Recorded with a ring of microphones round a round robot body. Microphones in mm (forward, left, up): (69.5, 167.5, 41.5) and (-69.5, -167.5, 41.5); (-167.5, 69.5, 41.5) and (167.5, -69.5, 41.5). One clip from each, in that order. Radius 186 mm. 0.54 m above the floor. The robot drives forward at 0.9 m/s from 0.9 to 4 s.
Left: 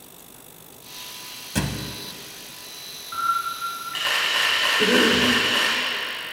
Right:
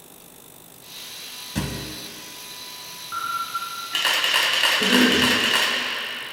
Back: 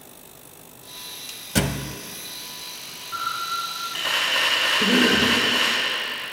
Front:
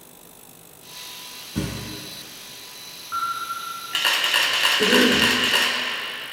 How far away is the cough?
About 2 m.